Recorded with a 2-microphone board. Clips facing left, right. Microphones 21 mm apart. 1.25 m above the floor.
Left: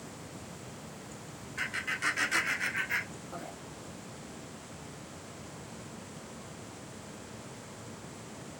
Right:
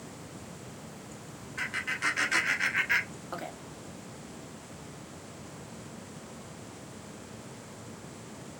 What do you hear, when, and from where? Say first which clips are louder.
1.6 s laughter: right 1 dB; 5° right (ahead or behind), 1.5 m; by 3.5 s 65° right (ahead or behind), 0.6 m